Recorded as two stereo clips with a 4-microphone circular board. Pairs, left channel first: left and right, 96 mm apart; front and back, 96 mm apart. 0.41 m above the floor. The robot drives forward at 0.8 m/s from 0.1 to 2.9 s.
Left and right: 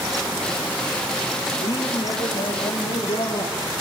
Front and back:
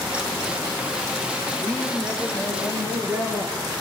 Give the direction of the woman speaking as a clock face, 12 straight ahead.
9 o'clock.